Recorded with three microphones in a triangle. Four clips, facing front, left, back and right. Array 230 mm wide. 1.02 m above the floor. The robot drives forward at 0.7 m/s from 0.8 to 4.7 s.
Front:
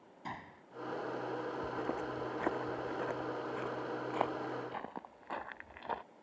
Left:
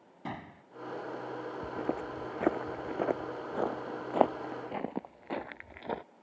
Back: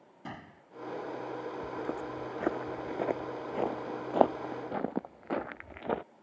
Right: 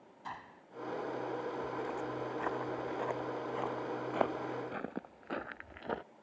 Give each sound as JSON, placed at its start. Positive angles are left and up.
{"t": 0.2, "sound": "a gunshot", "azimuth_deg": 110}
{"t": 1.6, "sound": "footsteps", "azimuth_deg": 95}